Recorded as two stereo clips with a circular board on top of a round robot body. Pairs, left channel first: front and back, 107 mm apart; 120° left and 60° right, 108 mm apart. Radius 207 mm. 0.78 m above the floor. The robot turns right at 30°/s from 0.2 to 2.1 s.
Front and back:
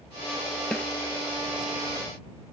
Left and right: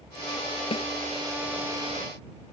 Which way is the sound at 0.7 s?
85° left.